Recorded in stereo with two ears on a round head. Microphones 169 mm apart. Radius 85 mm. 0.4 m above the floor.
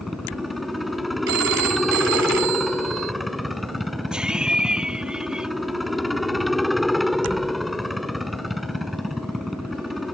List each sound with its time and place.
0.0 s a helicopter: centre (ahead or behind)
1.3 s a phone ringing: 70° right (ahead or behind)
4.1 s laughter: 5° right (ahead or behind)